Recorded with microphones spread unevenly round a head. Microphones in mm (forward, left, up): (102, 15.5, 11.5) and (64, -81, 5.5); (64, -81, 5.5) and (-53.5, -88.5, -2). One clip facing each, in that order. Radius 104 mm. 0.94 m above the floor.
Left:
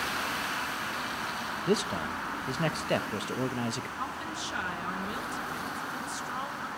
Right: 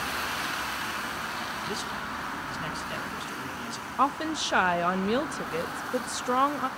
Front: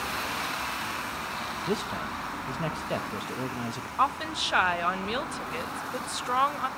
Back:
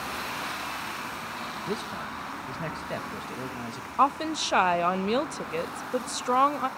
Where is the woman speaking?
130° right, 0.5 m.